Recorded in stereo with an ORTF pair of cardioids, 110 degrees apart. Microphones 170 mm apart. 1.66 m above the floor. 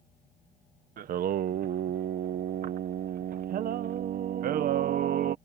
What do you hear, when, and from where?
1.0 s singing: 60° right